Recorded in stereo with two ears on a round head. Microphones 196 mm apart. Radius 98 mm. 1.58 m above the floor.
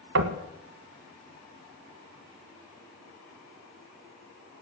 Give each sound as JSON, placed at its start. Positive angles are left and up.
{"t": 0.1, "sound": "knocking", "side_deg": -60, "distance_m": 1.3}